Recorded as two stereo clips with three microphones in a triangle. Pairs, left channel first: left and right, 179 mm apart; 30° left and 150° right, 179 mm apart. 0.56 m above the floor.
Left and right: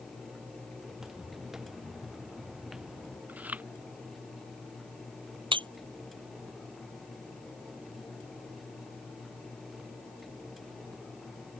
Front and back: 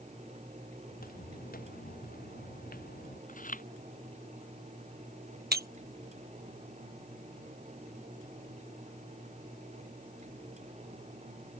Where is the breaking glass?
150° right.